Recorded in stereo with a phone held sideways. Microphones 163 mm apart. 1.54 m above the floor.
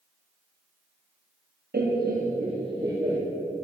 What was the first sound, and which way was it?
Laughter, 75° right (ahead or behind).